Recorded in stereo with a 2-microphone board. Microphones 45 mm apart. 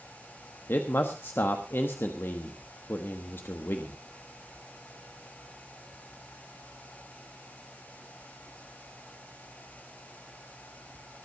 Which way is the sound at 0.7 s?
60° left (ahead or behind).